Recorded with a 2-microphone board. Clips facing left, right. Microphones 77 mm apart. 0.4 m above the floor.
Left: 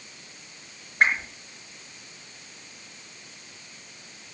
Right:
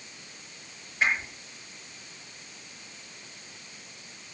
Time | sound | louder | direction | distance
1.0 | a whoosh | left 4 dB | 65° left (ahead or behind) | 7 m